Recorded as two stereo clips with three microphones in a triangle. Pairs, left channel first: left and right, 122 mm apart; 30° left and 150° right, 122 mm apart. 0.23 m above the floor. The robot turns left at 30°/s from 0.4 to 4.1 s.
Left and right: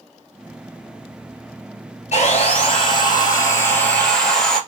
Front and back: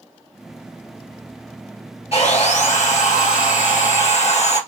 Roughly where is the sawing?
Ahead left.